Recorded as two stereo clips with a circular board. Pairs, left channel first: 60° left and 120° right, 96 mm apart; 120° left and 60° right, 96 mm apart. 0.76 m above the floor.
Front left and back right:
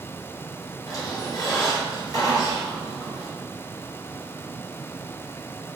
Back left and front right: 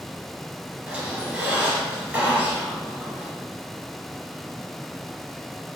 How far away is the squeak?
About 1.7 m.